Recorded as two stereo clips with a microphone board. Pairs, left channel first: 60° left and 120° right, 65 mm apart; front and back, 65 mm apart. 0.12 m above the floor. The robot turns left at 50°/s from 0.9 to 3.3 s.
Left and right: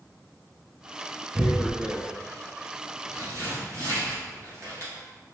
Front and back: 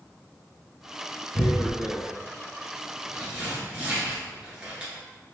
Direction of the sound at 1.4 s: 15° right.